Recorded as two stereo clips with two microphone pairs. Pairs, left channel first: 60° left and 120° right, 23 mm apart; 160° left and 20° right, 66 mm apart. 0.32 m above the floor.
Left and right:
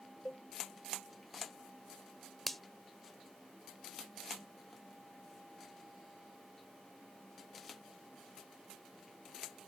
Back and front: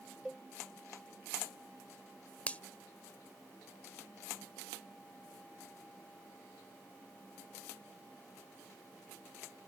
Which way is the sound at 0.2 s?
65° left.